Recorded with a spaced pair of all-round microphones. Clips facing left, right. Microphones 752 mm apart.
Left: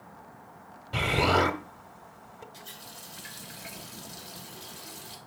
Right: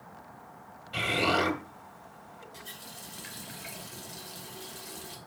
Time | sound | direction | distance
0.9 | an explosion | 70° left (ahead or behind) | 1.6 m
2.5 | a running tap | 75° right (ahead or behind) | 3 m